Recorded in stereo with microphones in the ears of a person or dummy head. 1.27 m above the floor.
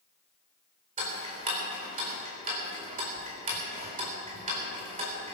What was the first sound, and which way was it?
Ticking, 35° right (ahead or behind).